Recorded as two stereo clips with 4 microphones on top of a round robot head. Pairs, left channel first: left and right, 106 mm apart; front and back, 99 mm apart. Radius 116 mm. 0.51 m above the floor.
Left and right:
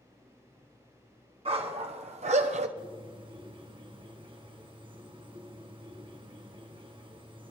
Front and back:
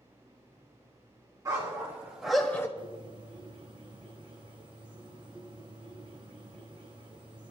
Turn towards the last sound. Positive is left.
turn(degrees=-130)